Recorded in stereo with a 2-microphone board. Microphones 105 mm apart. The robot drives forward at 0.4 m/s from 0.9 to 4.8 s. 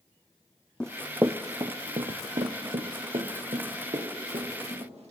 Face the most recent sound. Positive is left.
turn(degrees=-85)